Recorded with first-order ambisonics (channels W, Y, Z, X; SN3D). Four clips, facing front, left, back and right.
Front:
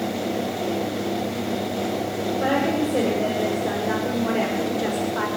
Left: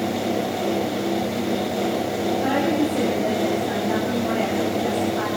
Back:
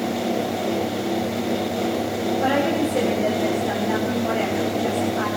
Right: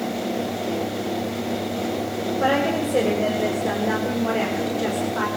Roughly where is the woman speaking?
Right.